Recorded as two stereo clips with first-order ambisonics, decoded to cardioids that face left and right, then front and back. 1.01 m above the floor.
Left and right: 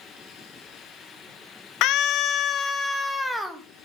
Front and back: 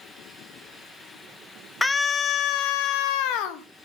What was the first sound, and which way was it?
A scream, 80° left.